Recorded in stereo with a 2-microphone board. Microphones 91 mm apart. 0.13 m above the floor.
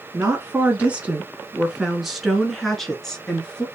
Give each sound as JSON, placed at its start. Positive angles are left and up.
{"t": 0.1, "sound": "a woman speaking", "side_deg": -25, "distance_m": 1.3}